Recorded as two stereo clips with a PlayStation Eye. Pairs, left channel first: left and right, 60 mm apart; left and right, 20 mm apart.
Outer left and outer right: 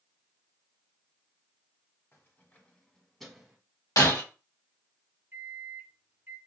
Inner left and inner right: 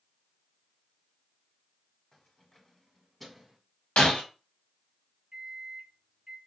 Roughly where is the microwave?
Right.